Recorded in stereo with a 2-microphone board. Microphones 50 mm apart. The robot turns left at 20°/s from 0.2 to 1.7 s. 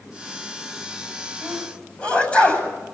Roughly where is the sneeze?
Centre.